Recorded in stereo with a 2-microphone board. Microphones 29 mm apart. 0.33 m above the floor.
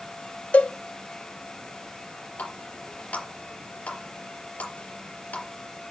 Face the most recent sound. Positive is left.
turn(degrees=65)  # may be behind; listen again after turning